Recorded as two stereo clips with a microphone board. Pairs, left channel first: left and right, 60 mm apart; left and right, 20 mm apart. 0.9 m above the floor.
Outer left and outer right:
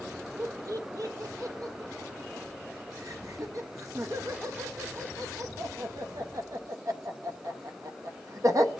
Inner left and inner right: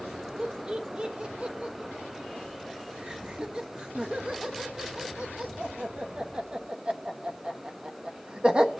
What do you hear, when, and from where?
0.4 s laughter: 55° right (ahead or behind), 1.0 m